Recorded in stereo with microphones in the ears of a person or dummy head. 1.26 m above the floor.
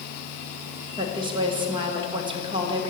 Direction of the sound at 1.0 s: 25° right (ahead or behind).